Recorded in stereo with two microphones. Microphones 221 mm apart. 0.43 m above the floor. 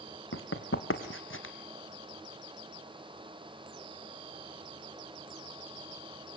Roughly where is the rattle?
No rattle in this recording.